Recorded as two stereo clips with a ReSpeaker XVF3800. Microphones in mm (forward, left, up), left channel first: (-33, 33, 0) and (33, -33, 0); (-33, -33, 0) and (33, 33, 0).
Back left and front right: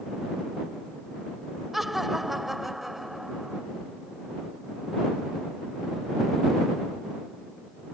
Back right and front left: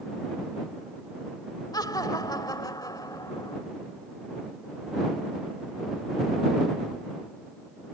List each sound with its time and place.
1.7 s laughter: 130° right